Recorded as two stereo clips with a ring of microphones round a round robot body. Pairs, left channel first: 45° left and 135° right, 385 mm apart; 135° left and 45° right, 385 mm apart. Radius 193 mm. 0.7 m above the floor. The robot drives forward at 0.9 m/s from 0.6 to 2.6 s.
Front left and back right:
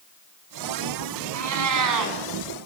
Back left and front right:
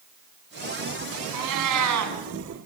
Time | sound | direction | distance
1.3 | a cat meowing | 85° right | 3.5 m